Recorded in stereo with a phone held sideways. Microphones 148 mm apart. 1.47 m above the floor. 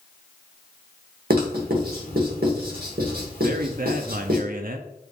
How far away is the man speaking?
About 0.5 m.